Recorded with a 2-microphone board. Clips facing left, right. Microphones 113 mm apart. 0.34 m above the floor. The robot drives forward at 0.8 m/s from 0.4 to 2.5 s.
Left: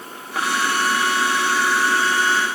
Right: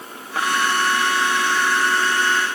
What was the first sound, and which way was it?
Only background noise.